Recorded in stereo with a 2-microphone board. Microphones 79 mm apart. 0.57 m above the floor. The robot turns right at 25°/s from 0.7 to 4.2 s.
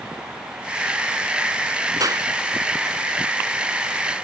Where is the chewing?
No chewing in this recording.